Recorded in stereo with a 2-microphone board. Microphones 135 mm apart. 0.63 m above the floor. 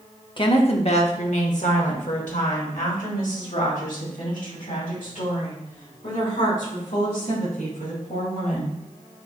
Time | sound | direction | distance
0.4 | a woman speaking | 35° left (ahead or behind) | 1.0 m